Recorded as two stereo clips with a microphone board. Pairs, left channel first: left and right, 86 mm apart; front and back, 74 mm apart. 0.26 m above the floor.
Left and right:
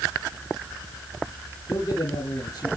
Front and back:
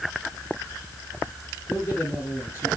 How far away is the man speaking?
About 2 m.